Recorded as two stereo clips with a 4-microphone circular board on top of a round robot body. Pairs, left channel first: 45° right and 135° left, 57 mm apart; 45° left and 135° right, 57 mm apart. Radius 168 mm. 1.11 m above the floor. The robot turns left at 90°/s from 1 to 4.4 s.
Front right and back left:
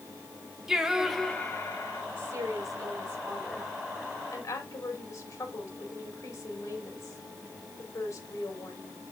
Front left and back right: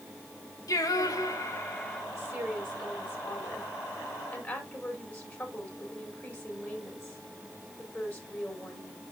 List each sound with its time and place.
0.7 s singing: 55° left, 1.6 m; by 2.0 s 40° right, 1.6 m
2.1 s a woman speaking: 165° right, 4 m; by 9.0 s 10° right, 4 m